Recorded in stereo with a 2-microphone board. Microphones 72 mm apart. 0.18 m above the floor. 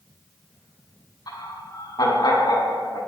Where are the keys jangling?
No keys jangling in this recording.